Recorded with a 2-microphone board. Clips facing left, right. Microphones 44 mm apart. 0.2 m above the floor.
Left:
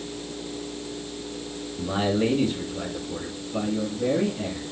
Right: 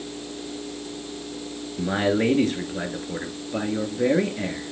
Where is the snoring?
I don't hear snoring.